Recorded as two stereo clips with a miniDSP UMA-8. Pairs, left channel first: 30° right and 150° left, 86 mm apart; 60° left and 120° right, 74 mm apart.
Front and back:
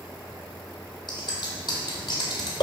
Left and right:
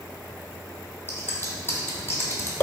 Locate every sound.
1.1 s scissors: straight ahead, 1.0 m